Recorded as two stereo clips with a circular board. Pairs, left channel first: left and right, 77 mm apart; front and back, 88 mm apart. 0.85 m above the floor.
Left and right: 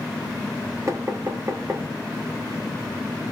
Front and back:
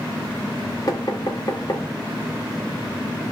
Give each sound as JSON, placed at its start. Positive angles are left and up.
{"t": 0.9, "sound": "knocking", "azimuth_deg": -40, "distance_m": 0.9}